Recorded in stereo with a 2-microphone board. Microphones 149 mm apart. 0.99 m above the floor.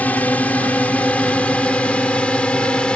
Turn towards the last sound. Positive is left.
turn(degrees=5)  # may be behind; listen again after turning